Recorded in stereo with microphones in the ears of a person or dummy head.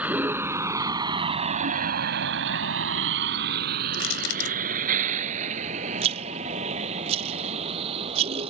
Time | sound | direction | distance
0.0 | a vehicle | 5° right (ahead or behind) | ?
3.9 | crushing | 85° left | ?
6.0 | a rattle | 35° right (ahead or behind) | ?